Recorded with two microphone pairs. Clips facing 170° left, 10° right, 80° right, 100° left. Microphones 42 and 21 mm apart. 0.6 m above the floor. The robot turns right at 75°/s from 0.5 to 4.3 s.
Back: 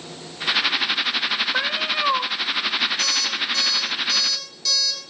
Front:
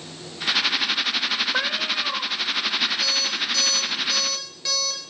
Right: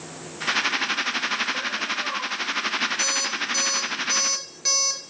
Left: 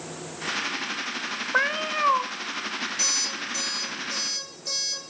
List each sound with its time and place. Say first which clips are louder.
1.5 s a cat meowing: back 2 dB, left 3 dB; 80° left, 0.7 m; by 2.3 s 135° left, 0.7 m
3.0 s an alarm clock: back 1 dB, right 2 dB; 175° right, 4.5 m; by 5.1 s 75° right, 4.5 m